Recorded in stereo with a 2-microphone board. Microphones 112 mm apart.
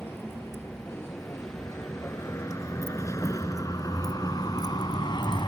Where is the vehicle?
20° left (ahead or behind); by 5.5 s 45° left (ahead or behind).